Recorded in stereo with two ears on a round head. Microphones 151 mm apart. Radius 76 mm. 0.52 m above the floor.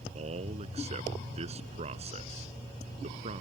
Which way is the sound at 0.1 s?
40° right (ahead or behind).